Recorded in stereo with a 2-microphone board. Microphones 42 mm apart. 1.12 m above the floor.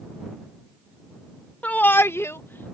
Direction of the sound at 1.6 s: 35° left (ahead or behind).